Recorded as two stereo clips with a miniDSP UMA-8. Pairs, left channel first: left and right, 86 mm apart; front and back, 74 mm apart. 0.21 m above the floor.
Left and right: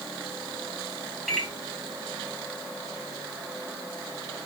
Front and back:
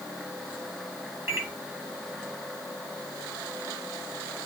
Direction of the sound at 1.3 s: Straight behind.